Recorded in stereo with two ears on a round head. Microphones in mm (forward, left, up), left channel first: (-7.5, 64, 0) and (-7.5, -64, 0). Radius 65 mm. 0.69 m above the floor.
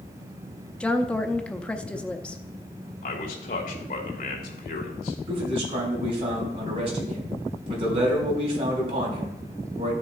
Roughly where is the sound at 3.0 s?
Left.